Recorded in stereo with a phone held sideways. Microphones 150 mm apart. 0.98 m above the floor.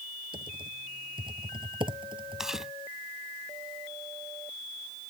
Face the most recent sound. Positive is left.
turn(degrees=-5)  # may be behind; listen again after turning